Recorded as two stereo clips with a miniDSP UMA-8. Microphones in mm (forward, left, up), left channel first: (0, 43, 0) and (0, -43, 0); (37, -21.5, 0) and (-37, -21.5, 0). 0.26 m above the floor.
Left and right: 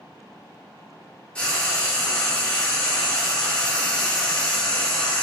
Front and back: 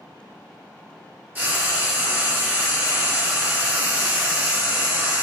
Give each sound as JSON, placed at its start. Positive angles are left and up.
{"t": 1.4, "sound": "frying", "azimuth_deg": 155, "distance_m": 0.7}